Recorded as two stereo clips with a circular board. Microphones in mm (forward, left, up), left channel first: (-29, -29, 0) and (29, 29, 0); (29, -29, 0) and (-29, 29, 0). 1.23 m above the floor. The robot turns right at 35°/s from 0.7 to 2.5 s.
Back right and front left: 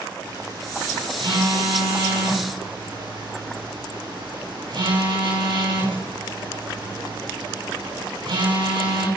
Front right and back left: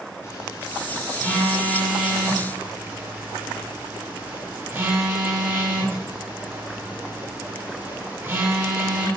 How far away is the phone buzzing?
About 7.5 m.